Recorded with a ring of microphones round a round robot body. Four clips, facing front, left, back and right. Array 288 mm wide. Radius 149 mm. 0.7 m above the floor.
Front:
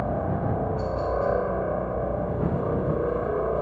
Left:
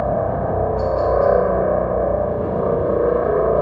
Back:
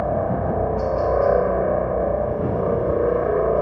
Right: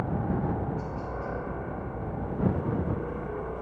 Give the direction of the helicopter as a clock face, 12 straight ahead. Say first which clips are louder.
Left 11 dB, back 5 dB; 8 o'clock.